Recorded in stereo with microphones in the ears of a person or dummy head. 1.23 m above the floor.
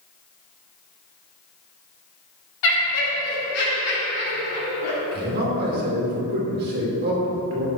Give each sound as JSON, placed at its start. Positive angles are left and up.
{"t": 2.6, "sound": "laughter", "side_deg": 70, "distance_m": 2.0}
{"t": 5.1, "sound": "a man speaking", "side_deg": -50, "distance_m": 2.5}